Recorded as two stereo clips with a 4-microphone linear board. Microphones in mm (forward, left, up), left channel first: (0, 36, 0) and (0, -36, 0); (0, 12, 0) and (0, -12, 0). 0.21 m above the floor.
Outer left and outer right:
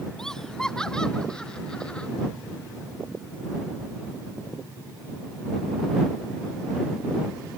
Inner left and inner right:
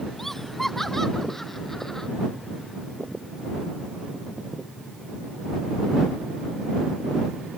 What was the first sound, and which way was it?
Laughter, 5° left (ahead or behind).